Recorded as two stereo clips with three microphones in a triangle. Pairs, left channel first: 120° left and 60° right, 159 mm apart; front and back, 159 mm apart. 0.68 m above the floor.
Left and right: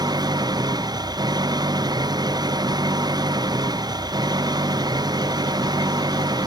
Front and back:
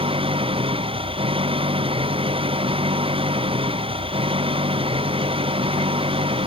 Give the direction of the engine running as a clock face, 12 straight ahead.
4 o'clock.